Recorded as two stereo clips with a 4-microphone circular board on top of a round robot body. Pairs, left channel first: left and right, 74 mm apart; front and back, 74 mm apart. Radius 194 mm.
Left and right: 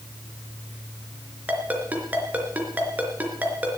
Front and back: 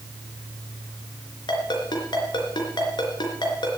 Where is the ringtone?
20° right, 3.5 m.